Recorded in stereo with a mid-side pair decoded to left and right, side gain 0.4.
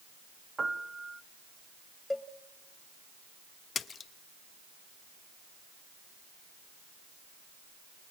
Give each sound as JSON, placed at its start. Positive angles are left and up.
{"t": 0.6, "sound": "a piano", "azimuth_deg": -30, "distance_m": 1.7}
{"t": 2.1, "sound": "a cowbell", "azimuth_deg": 15, "distance_m": 1.3}
{"t": 3.8, "sound": "a splash", "azimuth_deg": 55, "distance_m": 1.1}